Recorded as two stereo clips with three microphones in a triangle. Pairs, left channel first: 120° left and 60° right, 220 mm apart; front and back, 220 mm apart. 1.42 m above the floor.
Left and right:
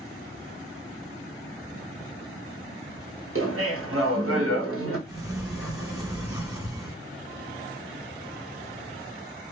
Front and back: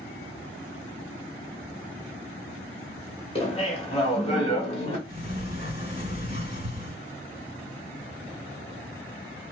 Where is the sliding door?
125° right, 1.6 m.